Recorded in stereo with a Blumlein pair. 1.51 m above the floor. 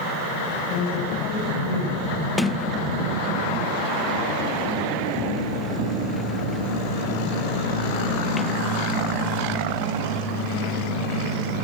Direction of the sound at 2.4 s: 10° left.